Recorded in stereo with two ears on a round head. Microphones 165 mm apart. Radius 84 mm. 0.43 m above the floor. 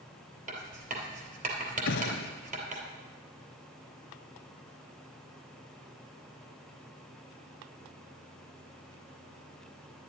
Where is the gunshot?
65° left (ahead or behind), 1.1 m.